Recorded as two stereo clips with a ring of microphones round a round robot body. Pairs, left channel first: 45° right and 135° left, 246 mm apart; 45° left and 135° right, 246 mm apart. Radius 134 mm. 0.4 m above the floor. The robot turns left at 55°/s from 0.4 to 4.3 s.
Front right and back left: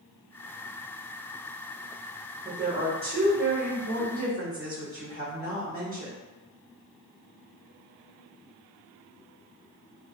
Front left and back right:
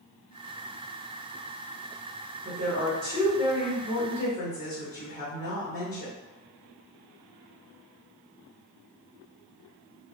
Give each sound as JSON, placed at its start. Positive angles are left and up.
{"t": 2.5, "sound": "a woman speaking", "azimuth_deg": -145, "distance_m": 1.1}